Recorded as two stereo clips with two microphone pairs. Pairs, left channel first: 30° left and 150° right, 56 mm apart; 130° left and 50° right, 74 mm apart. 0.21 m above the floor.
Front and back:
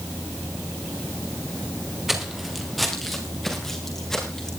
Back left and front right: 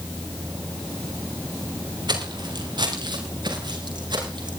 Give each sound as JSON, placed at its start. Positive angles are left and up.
{"t": 2.1, "sound": "footsteps", "azimuth_deg": -65, "distance_m": 3.5}